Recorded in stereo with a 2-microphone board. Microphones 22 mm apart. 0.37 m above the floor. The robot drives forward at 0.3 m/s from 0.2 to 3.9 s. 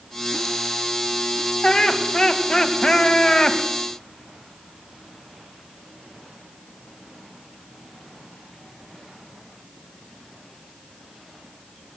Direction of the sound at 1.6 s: 40° left (ahead or behind).